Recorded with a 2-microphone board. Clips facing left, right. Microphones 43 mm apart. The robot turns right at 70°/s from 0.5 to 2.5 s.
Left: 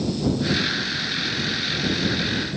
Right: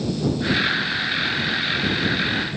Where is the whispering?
No whispering in this recording.